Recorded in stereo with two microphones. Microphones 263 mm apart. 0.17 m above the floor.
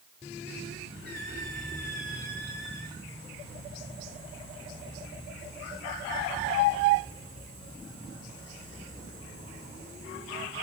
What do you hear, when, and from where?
1.1 s a squeak: 40° right (ahead or behind), 7.5 m